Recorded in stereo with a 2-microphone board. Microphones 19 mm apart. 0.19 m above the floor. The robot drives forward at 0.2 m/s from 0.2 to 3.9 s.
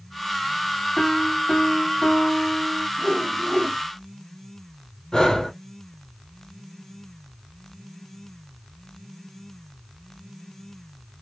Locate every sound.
1.0 s a piano: 60° left (ahead or behind), 2.5 m; by 2.9 s 50° left (ahead or behind), 2.5 m
3.0 s a whoosh: 55° left (ahead or behind), 2 m; by 3.8 s 50° left (ahead or behind), 2 m
5.1 s breathing: 30° left (ahead or behind), 2 m